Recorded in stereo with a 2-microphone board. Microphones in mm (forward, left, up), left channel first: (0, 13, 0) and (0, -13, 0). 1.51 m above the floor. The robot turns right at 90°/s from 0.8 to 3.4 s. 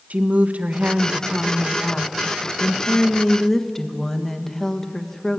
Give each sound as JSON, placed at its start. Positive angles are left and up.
{"t": 0.1, "sound": "a woman speaking", "azimuth_deg": -65, "distance_m": 1.5}